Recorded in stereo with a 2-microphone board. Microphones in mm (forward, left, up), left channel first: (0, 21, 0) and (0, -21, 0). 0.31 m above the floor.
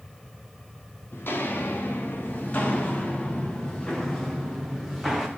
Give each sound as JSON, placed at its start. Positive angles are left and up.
{"t": 1.1, "sound": "footsteps", "side_deg": 50, "distance_m": 2.5}